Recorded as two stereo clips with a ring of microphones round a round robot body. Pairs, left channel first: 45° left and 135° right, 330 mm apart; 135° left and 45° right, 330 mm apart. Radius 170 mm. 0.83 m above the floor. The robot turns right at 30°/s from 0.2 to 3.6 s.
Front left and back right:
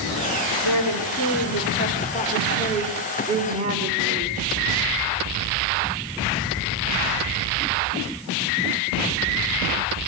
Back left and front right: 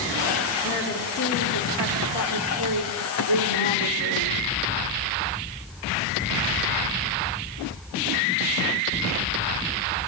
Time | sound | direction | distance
0.6 | a woman speaking | 70° left | 3.5 m